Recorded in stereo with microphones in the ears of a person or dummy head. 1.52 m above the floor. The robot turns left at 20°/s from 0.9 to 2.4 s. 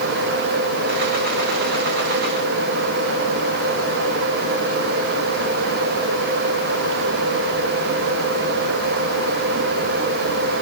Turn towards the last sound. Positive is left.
No sound to turn to.